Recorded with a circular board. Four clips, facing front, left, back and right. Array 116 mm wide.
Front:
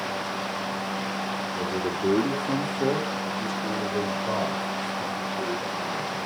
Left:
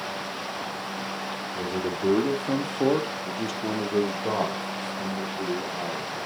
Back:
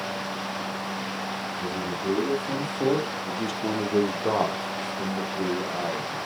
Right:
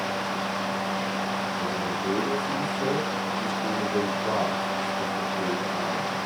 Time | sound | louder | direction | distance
1.5 | a man speaking | right 1 dB, front 4 dB | 45° left | 2.5 m